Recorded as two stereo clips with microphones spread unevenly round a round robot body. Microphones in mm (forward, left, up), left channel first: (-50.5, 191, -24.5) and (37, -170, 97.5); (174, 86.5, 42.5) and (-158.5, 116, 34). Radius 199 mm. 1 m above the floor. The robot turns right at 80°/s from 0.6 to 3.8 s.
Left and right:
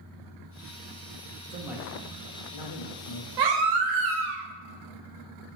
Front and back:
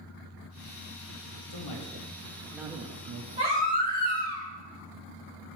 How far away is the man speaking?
About 1.3 m.